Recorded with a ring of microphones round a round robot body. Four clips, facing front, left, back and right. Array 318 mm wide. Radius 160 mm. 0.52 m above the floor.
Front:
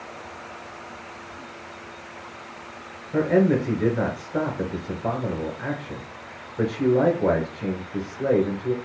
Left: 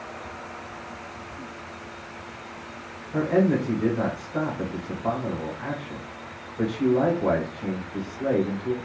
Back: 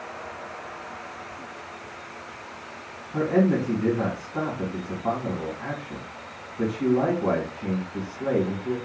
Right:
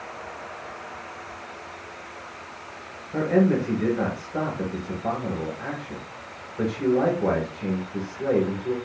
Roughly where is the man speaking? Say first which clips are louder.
Right 1 dB, front 2 dB; ahead.